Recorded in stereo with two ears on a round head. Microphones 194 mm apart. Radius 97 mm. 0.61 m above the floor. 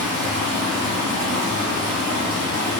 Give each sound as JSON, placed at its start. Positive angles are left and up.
{"t": 0.0, "sound": "running water", "side_deg": -70, "distance_m": 1.5}